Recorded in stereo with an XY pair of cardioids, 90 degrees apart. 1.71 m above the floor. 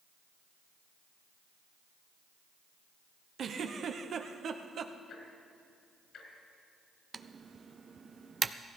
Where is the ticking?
70° left, 4 m.